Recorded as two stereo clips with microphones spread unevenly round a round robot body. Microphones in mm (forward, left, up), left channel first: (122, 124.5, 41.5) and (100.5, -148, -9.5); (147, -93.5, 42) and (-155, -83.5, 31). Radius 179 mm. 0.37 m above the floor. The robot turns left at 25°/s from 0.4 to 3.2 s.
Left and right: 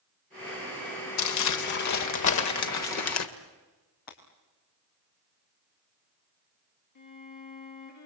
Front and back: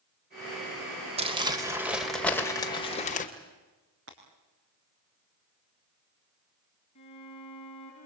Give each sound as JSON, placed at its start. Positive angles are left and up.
{"t": 1.2, "sound": "crumpling", "azimuth_deg": 115, "distance_m": 1.9}
{"t": 4.1, "sound": "breaking glass", "azimuth_deg": 115, "distance_m": 4.5}
{"t": 7.0, "sound": "a violin", "azimuth_deg": 75, "distance_m": 7.5}